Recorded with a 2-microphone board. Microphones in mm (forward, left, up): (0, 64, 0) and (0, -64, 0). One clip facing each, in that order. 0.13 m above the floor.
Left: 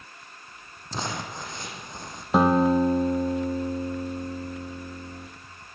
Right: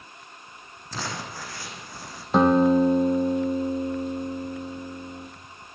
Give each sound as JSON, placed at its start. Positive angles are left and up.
{"t": 0.9, "sound": "crumpling", "side_deg": 20, "distance_m": 5.0}
{"t": 2.3, "sound": "a guitar", "side_deg": 5, "distance_m": 3.0}